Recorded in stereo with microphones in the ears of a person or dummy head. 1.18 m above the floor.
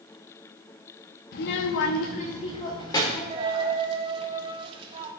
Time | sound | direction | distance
1.3 | a child speaking | 50° left (ahead or behind) | 1.0 m
3.3 | a dropped coin | 25° right (ahead or behind) | 1.1 m